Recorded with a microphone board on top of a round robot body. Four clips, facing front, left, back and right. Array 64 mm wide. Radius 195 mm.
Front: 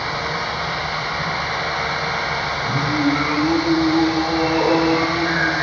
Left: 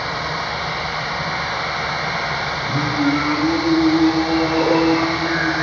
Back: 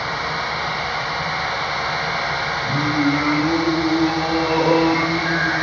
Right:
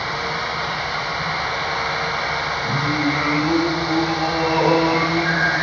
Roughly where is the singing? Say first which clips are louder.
Left 3 dB, even; behind right.